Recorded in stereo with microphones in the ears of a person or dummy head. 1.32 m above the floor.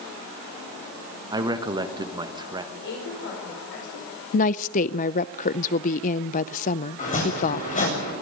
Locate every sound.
1.3 s a man speaking: 20° right (ahead or behind), 1.2 m
2.7 s a woman speaking: 65° left (ahead or behind), 5.5 m
4.3 s a woman speaking: 45° left (ahead or behind), 0.5 m
7.0 s chopping: 40° left (ahead or behind), 7.5 m